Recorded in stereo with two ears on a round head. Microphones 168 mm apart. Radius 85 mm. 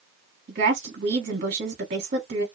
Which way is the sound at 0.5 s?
50° right (ahead or behind).